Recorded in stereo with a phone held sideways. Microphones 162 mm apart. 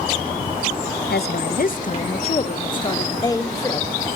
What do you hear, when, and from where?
1.1 s a woman speaking: 85° left, 0.6 m; by 3.9 s 15° left (ahead or behind), 1.5 m